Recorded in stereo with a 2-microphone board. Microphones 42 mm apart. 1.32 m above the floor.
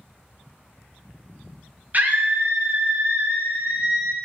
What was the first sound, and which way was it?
A scream, 40° right (ahead or behind).